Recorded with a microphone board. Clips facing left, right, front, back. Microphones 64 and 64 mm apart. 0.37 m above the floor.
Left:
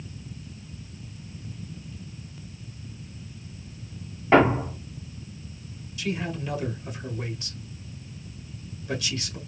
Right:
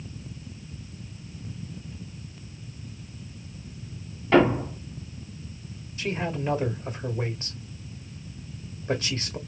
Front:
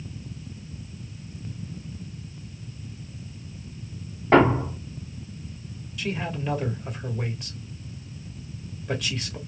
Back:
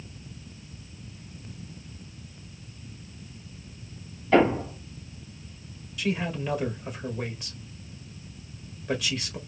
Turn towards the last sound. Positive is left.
turn(degrees=-90)